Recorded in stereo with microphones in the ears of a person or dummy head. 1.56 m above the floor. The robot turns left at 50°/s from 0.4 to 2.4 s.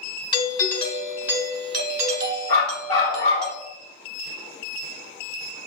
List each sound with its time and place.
0.3 s a doorbell: 30° left, 1.0 m; by 3.5 s 70° right, 1.0 m
2.5 s a dog barking: 25° left (ahead or behind), 1.6 m